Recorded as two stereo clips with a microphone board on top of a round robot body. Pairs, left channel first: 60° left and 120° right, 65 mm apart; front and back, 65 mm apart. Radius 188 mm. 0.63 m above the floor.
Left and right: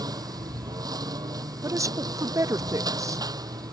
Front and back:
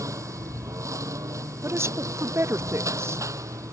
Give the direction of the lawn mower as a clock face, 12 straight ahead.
5 o'clock.